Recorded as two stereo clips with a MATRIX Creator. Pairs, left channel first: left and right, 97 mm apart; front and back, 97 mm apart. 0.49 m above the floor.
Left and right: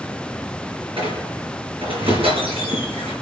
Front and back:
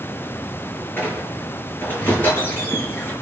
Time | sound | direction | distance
1.0 | a squeak | 70° right | 4.5 m